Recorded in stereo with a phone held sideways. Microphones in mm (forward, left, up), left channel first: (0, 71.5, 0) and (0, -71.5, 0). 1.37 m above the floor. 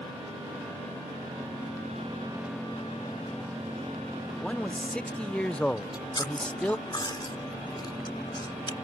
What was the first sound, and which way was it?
A man speaking, 5° left (ahead or behind).